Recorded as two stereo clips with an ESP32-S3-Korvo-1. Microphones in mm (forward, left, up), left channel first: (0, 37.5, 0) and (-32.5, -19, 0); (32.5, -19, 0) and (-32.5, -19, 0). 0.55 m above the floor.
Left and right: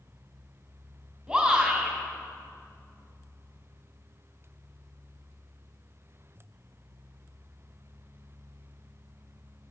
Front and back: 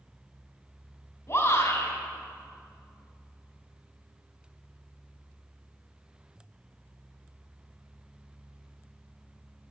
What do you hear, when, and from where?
1.3 s a shout: 35° right, 2.5 m